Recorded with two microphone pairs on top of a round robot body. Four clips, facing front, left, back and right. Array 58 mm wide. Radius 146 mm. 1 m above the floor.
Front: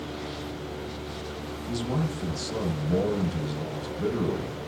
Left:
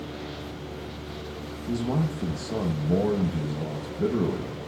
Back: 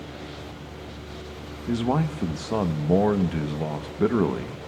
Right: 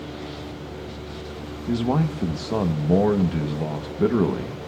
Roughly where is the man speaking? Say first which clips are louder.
Right 5 dB, back 6 dB; behind right.